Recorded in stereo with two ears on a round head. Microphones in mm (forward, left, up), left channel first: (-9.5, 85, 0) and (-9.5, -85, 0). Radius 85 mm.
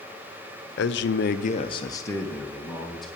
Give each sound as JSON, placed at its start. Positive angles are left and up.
{"t": 0.8, "sound": "a man speaking", "side_deg": 65, "distance_m": 0.8}